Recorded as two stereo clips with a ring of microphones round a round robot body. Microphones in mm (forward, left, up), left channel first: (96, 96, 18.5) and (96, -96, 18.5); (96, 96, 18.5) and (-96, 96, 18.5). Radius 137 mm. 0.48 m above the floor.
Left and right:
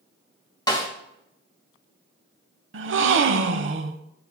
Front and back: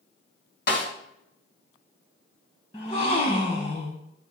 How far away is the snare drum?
About 4 m.